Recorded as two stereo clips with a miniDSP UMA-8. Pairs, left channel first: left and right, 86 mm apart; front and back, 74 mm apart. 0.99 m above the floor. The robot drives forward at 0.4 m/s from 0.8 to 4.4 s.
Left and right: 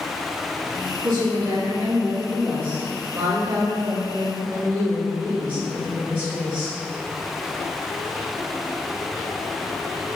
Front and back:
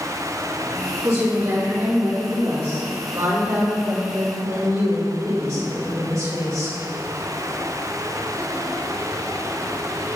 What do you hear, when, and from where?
1.0 s a woman speaking: 140° right, 2.5 m; by 6.8 s 155° right, 3.5 m